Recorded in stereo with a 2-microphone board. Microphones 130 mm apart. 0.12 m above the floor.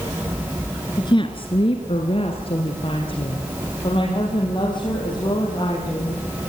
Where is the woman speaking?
35° left (ahead or behind), 1.9 m.